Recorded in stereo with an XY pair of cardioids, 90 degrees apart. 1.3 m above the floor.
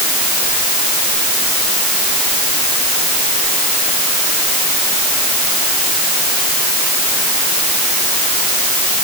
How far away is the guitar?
I don't hear a guitar.